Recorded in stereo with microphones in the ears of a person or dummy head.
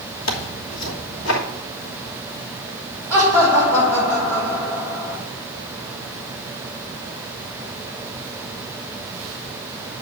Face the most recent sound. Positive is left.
turn(degrees=-10)  # may be behind; listen again after turning